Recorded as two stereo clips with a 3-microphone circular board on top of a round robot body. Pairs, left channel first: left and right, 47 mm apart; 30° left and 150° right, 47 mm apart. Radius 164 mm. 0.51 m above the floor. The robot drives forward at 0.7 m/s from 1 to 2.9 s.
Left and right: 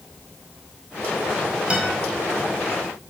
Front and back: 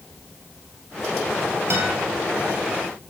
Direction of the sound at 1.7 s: 155° right.